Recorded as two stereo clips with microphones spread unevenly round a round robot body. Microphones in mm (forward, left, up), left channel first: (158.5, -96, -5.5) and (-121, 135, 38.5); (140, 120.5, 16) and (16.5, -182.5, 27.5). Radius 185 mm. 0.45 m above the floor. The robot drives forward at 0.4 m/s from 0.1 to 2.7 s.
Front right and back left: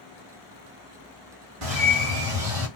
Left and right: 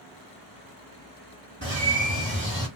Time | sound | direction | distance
1.6 | a bird | 175° left | 1.6 m